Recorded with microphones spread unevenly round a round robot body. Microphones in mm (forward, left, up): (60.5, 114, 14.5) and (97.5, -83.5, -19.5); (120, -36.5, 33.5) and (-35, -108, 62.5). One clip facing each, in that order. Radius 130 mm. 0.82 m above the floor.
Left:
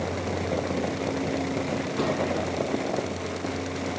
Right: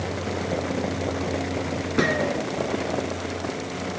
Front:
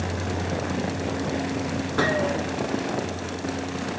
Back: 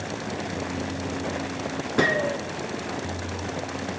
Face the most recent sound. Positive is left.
turn(degrees=-90)